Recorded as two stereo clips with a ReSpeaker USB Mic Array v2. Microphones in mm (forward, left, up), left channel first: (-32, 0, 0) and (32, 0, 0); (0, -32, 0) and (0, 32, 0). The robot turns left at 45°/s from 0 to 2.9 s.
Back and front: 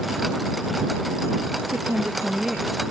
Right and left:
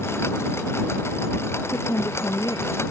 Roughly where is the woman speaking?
Ahead right.